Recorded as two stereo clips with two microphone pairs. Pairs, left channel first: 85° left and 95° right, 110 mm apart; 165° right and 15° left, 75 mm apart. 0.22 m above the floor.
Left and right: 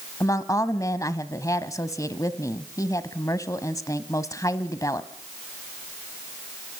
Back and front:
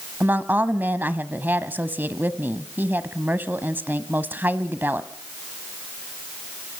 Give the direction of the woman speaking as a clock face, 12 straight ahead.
10 o'clock.